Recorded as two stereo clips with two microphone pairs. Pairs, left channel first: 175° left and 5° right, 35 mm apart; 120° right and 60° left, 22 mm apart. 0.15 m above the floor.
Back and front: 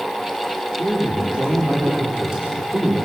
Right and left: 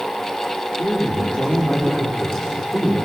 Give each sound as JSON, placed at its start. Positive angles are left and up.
{"t": 0.8, "sound": "a man speaking", "azimuth_deg": -60, "distance_m": 6.5}